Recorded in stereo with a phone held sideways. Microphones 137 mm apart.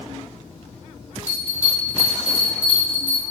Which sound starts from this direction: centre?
A bell, at 1.3 s.